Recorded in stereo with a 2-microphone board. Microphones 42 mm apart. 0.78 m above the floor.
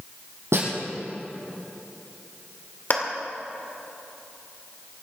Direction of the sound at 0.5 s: 85° right.